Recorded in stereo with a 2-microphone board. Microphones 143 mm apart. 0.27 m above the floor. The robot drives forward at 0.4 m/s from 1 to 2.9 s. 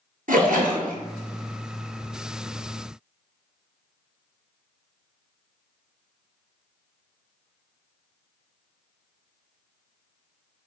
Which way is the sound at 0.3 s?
80° right.